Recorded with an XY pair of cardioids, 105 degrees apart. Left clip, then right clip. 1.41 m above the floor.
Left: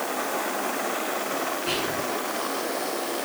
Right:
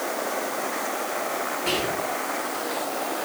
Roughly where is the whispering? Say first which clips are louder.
Right 1 dB; ahead right.